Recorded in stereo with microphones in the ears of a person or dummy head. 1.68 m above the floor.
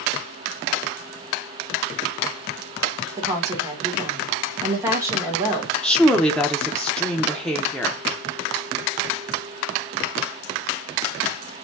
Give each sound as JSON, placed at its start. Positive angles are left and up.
{"t": 3.2, "sound": "a woman speaking", "side_deg": -20, "distance_m": 3.0}
{"t": 5.8, "sound": "a woman speaking", "side_deg": 5, "distance_m": 1.1}